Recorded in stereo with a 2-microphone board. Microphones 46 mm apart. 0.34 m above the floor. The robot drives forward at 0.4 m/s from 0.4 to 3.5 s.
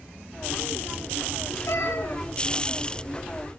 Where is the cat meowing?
60° left (ahead or behind), 3 m; by 2.2 s 55° left (ahead or behind), 3 m.